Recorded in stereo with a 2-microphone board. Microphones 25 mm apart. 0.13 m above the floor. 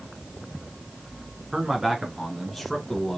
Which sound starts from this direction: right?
A man speaking, at 1.5 s.